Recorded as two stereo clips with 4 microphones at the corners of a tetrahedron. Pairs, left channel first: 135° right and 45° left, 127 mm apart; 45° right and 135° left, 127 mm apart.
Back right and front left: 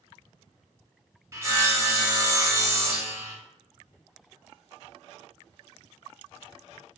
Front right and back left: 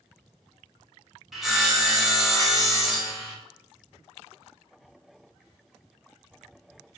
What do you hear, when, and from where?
1.3 s sawing: 50° left, 0.8 m